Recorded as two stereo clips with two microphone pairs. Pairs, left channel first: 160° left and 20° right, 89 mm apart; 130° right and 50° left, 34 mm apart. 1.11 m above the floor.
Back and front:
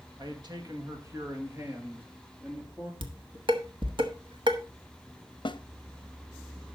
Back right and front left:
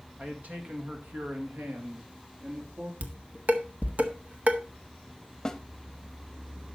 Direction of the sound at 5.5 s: 160° left.